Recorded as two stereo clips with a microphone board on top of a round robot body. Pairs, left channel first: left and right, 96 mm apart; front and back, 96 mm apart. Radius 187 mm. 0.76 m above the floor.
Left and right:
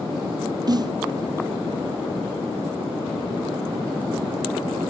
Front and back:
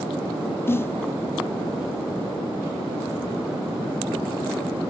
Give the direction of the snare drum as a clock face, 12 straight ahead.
2 o'clock.